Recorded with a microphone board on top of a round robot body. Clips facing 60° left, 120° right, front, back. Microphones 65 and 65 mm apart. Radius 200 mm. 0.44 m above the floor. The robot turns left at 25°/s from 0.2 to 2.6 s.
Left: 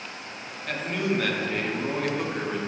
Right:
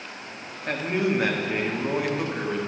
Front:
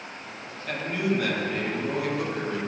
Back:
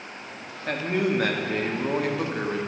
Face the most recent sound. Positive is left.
turn(degrees=145)